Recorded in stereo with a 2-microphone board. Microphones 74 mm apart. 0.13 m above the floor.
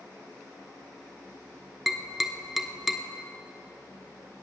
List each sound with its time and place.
1.9 s tapping: centre (ahead or behind), 0.9 m